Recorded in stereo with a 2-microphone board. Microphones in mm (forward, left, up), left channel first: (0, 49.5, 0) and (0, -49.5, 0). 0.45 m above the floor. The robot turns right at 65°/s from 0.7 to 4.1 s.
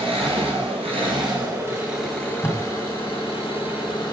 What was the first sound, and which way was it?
An engine running, 90° right.